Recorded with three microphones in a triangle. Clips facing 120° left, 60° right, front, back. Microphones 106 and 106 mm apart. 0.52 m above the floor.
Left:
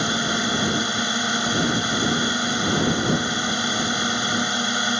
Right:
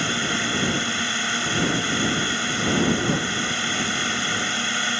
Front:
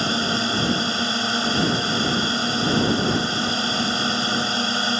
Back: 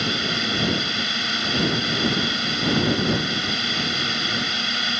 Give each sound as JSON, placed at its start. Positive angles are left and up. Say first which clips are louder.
{"t": 0.0, "sound": "a drone", "louder": "left 2 dB, front 3 dB", "azimuth_deg": 50}